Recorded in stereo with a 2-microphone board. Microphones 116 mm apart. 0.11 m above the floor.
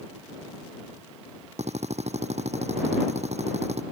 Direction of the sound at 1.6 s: 70° right (ahead or behind).